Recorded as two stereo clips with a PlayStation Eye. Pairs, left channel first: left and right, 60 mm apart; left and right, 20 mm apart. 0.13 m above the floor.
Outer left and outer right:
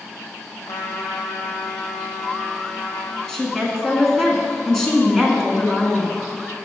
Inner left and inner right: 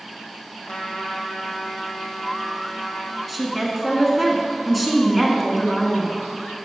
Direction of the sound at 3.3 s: 10° left (ahead or behind).